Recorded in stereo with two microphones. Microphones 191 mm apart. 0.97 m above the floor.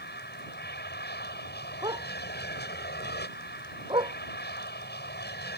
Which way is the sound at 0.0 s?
70° left (ahead or behind).